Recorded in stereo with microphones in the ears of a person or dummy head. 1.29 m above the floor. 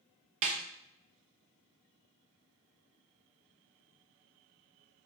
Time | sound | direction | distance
0.4 | a snare drum | 40° right (ahead or behind) | 0.7 m